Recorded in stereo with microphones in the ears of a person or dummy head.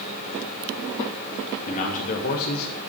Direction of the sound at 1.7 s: 50° left (ahead or behind).